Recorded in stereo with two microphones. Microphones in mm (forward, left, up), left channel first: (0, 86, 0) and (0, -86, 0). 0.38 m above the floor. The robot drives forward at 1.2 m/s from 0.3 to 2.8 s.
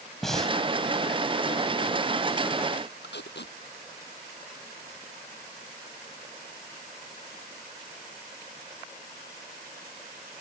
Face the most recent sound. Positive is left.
turn(degrees=85)